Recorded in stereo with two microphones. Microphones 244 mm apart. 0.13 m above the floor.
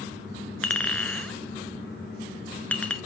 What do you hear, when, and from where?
0.6 s a clink: 5° left (ahead or behind), 0.8 m